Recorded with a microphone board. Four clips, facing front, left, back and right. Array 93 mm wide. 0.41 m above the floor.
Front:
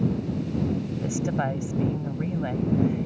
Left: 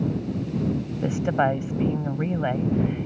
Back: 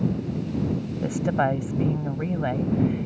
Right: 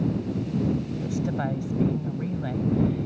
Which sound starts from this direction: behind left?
A woman speaking, at 1.0 s.